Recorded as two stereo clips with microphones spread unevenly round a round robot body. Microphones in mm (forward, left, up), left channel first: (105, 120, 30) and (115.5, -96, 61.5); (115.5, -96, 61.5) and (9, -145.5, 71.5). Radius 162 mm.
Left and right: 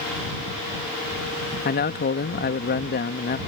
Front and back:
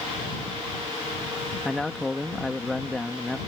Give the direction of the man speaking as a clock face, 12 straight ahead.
8 o'clock.